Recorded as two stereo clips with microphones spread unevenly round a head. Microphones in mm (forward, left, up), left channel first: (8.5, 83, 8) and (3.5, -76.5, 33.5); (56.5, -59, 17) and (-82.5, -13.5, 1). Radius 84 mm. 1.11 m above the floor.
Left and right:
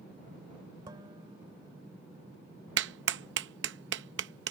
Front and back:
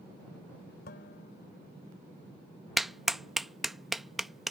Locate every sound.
0.9 s dishes clattering: 25° right
2.8 s a clap: 110° right